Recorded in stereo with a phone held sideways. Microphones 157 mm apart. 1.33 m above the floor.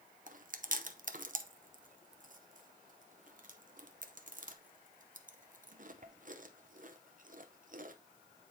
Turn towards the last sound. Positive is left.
turn(degrees=-55)  # may be behind; listen again after turning